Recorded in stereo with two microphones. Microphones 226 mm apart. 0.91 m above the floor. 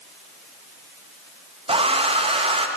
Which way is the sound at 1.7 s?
25° right (ahead or behind).